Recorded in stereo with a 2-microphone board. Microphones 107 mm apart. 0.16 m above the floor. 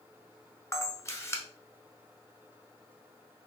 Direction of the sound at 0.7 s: 25° left (ahead or behind).